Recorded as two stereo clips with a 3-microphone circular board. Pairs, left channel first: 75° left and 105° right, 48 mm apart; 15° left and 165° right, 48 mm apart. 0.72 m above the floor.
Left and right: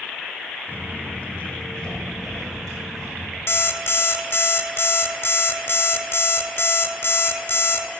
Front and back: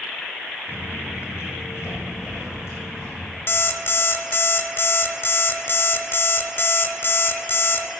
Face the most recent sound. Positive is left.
turn(degrees=50)